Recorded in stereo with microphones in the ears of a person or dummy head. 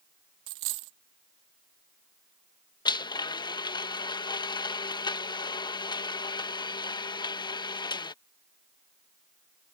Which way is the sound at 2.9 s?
25° left (ahead or behind).